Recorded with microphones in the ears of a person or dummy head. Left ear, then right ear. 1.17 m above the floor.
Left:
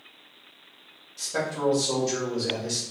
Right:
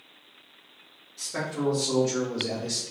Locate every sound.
1.2 s a man speaking: 15° right (ahead or behind), 1.8 m; by 2.8 s 45° right (ahead or behind), 1.4 m